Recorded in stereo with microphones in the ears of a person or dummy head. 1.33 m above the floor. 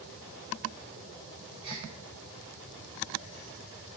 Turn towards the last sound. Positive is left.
turn(degrees=-30)  # may be behind; listen again after turning